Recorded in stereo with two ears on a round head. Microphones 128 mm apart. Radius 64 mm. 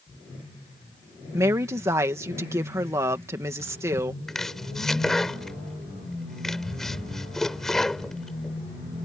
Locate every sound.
1.3 s a woman speaking: 20° right (ahead or behind)
4.3 s chopping: centre (ahead or behind)